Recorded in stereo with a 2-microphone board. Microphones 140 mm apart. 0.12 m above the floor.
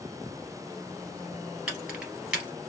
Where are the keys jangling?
5° right (ahead or behind), 1.7 m.